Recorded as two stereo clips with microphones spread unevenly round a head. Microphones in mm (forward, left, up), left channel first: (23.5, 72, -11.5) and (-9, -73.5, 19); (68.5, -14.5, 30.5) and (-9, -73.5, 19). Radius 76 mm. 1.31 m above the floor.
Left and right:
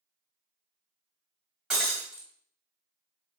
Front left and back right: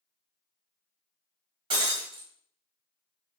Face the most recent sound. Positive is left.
turn(degrees=-170)